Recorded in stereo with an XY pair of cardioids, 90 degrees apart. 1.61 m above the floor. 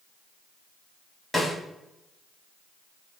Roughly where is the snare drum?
Ahead.